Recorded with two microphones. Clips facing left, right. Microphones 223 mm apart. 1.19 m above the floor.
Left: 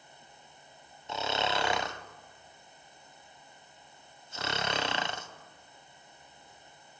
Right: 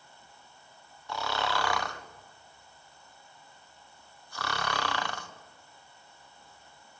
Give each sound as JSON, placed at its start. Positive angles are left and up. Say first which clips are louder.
{"t": 1.1, "sound": "snoring", "louder": "left 1 dB", "side_deg": 20, "distance_m": 0.6}